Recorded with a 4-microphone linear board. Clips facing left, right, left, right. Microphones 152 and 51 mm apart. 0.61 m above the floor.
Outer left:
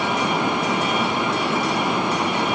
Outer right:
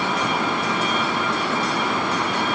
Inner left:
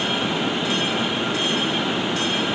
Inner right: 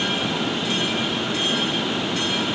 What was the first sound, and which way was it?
Only background noise.